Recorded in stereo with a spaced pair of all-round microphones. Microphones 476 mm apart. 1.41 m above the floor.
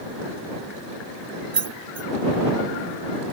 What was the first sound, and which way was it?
Keys jangling, 50° right (ahead or behind).